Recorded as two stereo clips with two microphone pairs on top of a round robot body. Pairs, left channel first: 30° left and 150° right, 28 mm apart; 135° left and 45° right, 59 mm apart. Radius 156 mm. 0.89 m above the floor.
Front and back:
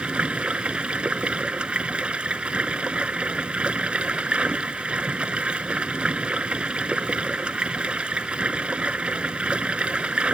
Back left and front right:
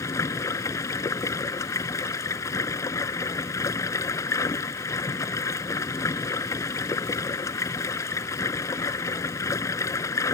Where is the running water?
165° left.